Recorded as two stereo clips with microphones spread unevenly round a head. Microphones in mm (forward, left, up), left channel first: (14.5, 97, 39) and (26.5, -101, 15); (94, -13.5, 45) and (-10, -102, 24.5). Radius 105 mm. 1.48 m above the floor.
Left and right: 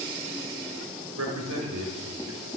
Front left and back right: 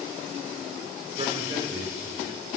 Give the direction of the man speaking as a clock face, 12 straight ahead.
3 o'clock.